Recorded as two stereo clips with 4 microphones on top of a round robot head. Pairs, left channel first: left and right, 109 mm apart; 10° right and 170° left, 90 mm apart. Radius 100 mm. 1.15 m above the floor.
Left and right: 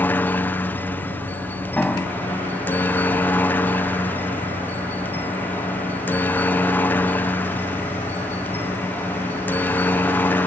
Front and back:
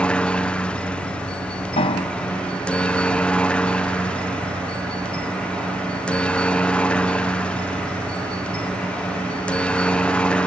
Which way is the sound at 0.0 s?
45° left.